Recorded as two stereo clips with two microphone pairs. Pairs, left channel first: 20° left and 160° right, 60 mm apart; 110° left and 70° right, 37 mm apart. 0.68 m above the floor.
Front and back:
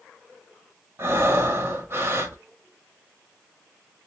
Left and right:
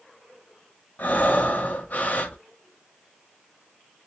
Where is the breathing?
155° left, 1.0 m.